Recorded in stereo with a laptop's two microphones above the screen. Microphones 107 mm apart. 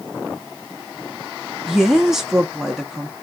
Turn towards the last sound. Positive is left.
turn(degrees=0)  # may be behind; listen again after turning